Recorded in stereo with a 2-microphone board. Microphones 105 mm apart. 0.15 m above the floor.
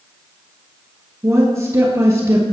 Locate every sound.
1.2 s a woman speaking: 30° right (ahead or behind), 2.5 m